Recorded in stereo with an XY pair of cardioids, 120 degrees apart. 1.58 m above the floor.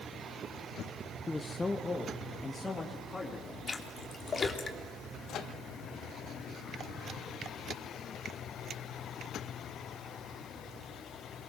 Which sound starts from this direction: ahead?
A man speaking, at 1.3 s.